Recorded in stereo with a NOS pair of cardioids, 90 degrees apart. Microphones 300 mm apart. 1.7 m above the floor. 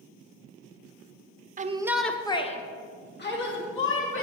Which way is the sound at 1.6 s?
25° right.